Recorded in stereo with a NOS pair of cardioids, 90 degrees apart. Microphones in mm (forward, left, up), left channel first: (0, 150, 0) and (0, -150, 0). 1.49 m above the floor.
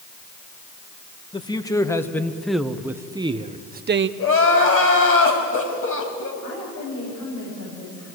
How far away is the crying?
About 4.5 m.